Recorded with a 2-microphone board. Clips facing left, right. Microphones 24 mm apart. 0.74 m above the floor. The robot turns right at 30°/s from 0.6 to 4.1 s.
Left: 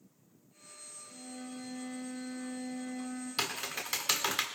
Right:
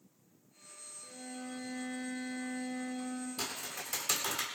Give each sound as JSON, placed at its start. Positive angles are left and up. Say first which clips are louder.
{"t": 1.0, "sound": "a violin", "louder": "right 1 dB", "azimuth_deg": -135, "distance_m": 4.5}
{"t": 3.4, "sound": "typing on a keyboard", "louder": "left 5 dB", "side_deg": 50, "distance_m": 1.5}